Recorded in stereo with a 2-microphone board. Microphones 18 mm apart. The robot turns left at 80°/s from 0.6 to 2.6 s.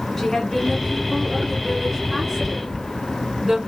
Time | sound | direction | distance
0.2 | a woman speaking | 10° left (ahead or behind) | 1.6 m